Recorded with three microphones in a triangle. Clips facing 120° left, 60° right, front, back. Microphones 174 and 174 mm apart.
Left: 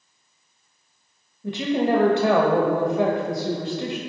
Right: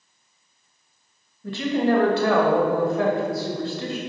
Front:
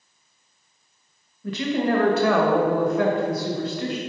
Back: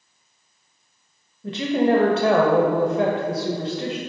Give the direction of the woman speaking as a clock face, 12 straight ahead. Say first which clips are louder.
Even, back 3 dB; 7 o'clock.